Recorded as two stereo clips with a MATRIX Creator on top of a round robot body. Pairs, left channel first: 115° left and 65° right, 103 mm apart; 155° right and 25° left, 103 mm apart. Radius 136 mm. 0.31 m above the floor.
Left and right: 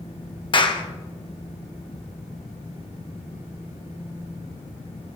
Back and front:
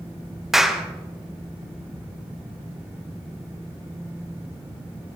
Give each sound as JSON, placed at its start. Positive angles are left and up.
{"t": 0.5, "sound": "a clap", "azimuth_deg": 110, "distance_m": 1.7}